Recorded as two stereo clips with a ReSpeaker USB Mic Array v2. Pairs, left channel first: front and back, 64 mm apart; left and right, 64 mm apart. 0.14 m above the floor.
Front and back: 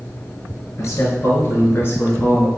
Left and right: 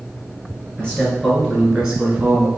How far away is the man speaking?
About 1.7 m.